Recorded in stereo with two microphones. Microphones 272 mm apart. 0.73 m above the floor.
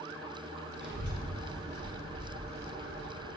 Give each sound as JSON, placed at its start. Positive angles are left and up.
{"t": 0.8, "sound": "a child speaking", "side_deg": -35, "distance_m": 1.9}